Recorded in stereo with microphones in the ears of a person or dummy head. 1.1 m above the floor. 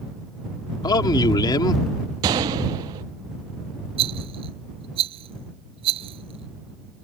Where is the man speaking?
25° left (ahead or behind).